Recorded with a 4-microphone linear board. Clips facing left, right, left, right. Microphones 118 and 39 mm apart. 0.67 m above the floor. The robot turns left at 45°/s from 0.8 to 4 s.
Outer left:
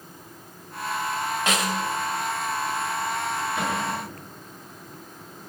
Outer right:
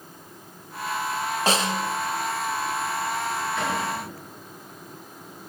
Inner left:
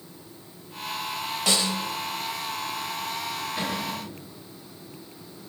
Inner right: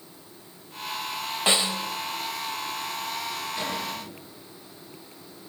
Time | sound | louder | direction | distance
1.5 | a snare drum | outer right 3 dB, inner right 1 dB | 35° right (ahead or behind) | 0.7 m
3.6 | a cupboard door | even, inner left 1 dB | 15° left (ahead or behind) | 8 m